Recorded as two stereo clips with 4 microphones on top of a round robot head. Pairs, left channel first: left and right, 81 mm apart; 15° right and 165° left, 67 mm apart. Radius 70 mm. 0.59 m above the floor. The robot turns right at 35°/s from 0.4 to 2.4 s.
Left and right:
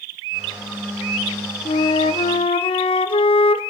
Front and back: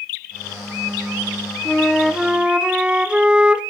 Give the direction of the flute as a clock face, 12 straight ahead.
10 o'clock.